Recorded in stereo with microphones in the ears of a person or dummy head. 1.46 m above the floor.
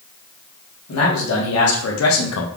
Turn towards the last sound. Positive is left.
turn(degrees=75)  # may be behind; listen again after turning